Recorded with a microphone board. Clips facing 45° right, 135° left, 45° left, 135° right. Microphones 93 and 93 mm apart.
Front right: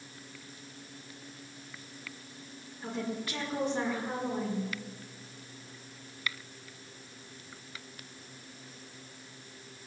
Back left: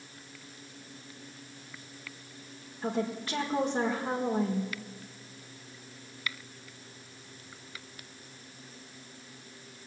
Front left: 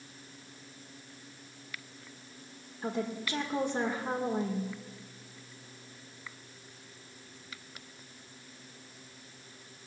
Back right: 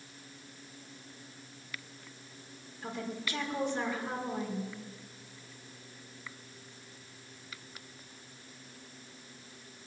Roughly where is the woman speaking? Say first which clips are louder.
Back left 4 dB, front left 4 dB; left.